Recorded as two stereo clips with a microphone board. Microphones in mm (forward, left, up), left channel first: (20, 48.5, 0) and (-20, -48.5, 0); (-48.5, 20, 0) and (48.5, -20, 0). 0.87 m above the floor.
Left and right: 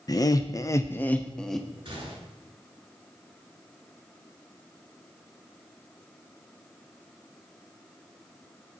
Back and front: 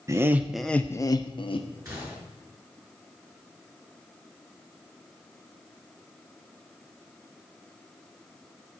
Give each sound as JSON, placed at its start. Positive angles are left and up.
{"t": 0.1, "sound": "laughter", "azimuth_deg": 25, "distance_m": 0.6}
{"t": 1.9, "sound": "a gunshot", "azimuth_deg": -80, "distance_m": 5.0}